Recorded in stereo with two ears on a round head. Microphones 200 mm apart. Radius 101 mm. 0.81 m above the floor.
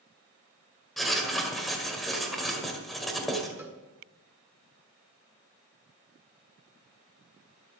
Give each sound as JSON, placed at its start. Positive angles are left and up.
{"t": 1.0, "sound": "writing", "side_deg": 0, "distance_m": 1.8}
{"t": 3.6, "sound": "a cowbell", "side_deg": -10, "distance_m": 1.0}